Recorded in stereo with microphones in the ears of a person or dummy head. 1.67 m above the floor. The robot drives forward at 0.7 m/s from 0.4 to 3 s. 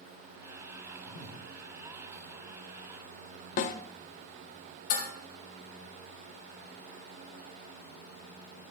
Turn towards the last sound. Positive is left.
turn(degrees=40)  # may be behind; listen again after turning